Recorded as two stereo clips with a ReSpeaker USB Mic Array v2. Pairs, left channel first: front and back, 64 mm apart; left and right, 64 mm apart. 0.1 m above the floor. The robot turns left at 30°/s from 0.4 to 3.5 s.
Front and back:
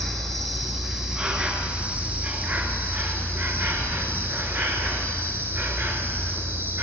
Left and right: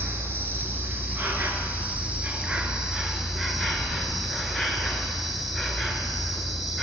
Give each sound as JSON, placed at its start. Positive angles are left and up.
{"t": 0.0, "sound": "an insect", "azimuth_deg": -85, "distance_m": 0.9}